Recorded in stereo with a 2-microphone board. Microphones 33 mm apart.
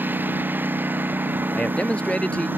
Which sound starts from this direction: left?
A man speaking, at 1.5 s.